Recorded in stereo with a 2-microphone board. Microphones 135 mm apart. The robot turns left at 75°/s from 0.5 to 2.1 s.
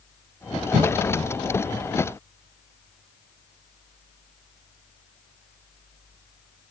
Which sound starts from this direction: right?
A cough, at 0.7 s.